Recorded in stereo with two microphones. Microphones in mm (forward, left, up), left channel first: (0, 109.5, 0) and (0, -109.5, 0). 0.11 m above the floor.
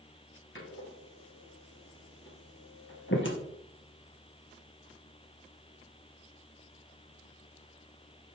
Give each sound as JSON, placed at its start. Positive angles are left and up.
{"t": 0.6, "sound": "a door slam", "side_deg": 65, "distance_m": 1.9}